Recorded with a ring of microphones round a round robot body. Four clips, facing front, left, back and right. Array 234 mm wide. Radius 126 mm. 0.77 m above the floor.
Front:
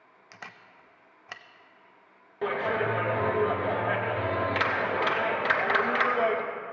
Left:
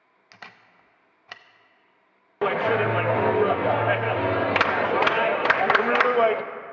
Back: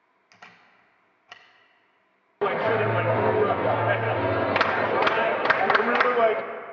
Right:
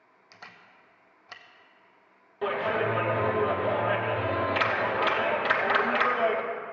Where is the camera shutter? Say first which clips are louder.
Left 3 dB, front 4 dB; 50° left, 0.6 m.